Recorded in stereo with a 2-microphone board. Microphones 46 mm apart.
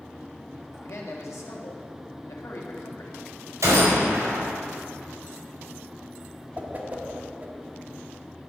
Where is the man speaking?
70° left (ahead or behind), 1.6 m.